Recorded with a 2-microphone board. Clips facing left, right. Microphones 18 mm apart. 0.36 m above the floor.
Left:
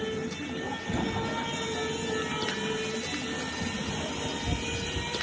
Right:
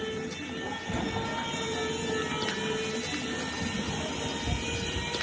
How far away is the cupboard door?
About 1.9 m.